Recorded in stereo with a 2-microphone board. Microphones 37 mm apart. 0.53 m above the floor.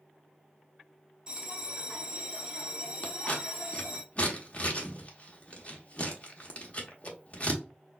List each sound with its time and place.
1.3 s a bell: 20° right (ahead or behind), 0.8 m
3.0 s scissors: 35° left (ahead or behind), 0.9 m